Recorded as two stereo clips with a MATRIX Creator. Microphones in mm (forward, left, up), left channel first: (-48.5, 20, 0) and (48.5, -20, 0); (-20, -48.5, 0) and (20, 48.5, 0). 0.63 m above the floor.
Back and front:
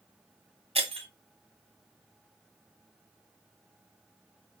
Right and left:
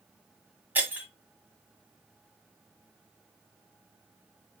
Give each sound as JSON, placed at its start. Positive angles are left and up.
{"t": 0.8, "sound": "breaking glass", "azimuth_deg": -5, "distance_m": 1.6}